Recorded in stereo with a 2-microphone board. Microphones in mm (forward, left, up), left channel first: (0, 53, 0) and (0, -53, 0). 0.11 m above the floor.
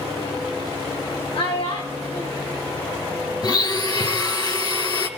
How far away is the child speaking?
About 3 m.